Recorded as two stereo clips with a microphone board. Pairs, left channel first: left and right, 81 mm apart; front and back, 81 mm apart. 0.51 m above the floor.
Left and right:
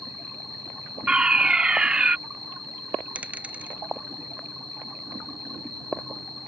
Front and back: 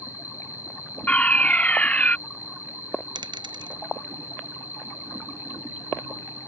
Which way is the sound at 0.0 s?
110° right.